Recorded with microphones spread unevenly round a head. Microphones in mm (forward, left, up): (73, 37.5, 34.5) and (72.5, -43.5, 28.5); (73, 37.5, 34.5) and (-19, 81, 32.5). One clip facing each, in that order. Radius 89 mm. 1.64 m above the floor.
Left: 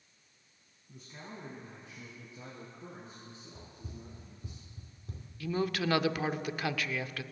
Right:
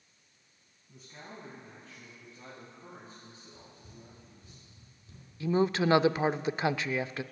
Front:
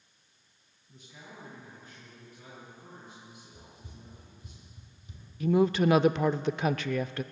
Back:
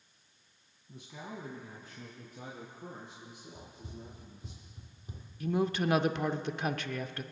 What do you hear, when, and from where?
0.9 s a man speaking: 175° right, 1.8 m; by 4.5 s 160° left, 5.5 m
3.5 s running footsteps: 85° left, 2.5 m; by 5.3 s 120° left, 3 m
5.4 s a woman speaking: 25° right, 0.5 m